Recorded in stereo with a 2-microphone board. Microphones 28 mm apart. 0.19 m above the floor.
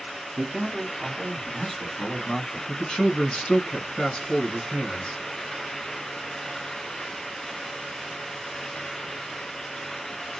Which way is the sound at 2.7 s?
40° left (ahead or behind).